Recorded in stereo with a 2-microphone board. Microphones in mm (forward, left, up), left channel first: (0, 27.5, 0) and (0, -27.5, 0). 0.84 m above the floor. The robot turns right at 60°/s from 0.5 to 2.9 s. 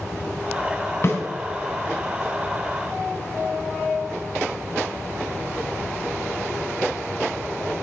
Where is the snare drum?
50° left (ahead or behind), 3.5 m; by 1.2 s 45° left (ahead or behind), 3.5 m.